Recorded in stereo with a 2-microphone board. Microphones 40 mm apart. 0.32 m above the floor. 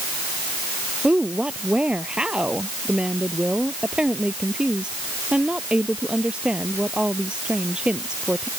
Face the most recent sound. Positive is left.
turn(degrees=-25)  # may be behind; listen again after turning